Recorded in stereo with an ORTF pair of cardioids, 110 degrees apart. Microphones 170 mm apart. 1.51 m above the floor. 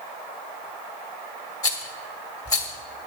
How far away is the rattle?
About 2.5 m.